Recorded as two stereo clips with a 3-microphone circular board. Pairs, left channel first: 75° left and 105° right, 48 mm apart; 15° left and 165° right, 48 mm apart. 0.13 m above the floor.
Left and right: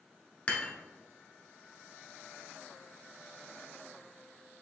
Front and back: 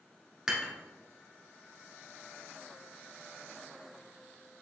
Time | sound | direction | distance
0.5 | dishes clattering | 125° left | 1.1 m